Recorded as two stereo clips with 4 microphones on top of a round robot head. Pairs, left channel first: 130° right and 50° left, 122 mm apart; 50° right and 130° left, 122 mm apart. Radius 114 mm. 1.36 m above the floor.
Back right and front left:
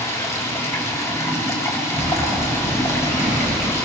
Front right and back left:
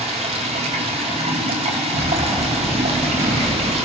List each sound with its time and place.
0.0 s running water: 160° left, 3.5 m
1.9 s a sliding door: 125° left, 5 m